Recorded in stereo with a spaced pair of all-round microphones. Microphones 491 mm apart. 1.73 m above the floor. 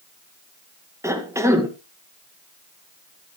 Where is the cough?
5° right (ahead or behind), 1.7 m.